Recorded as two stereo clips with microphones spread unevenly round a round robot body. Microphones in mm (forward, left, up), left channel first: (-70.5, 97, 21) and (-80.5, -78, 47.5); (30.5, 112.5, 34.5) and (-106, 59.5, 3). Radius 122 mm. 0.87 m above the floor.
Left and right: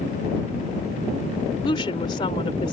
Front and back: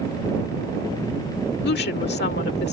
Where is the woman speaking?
15° left.